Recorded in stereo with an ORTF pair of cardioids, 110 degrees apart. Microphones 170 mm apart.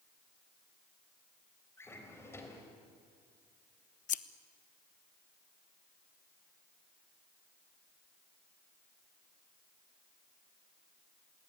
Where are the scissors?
50° left, 0.9 m.